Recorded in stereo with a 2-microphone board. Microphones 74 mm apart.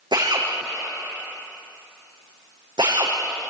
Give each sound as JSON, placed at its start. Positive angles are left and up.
{"t": 0.1, "sound": "a drill", "side_deg": -75, "distance_m": 6.5}